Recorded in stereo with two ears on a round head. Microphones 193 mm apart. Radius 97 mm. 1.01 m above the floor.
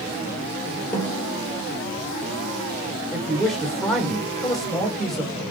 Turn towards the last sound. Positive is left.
turn(degrees=0)  # may be behind; listen again after turning